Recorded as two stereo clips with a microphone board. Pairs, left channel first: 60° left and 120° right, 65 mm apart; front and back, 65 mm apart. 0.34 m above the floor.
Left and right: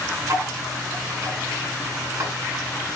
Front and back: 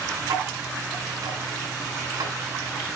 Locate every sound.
0.2 s ticking: 170° right, 2.5 m